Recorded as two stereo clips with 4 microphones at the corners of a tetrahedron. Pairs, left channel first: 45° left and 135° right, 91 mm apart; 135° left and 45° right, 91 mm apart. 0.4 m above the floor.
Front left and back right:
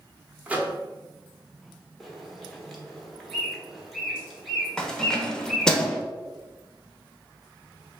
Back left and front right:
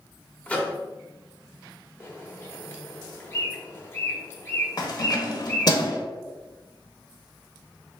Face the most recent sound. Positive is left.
turn(degrees=125)